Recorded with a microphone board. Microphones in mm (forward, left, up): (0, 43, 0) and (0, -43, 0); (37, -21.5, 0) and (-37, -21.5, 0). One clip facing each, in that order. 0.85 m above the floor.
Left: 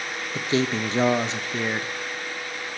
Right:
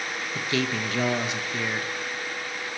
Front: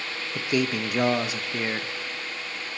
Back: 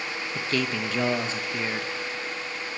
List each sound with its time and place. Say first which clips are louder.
0.3 s a man speaking: left 4 dB, front 3 dB; 60° left, 0.6 m